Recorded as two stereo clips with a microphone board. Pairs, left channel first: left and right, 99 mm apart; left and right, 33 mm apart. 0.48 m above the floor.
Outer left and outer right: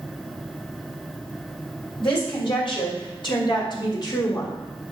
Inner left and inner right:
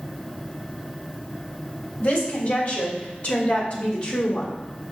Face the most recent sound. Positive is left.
turn(degrees=35)  # may be behind; listen again after turning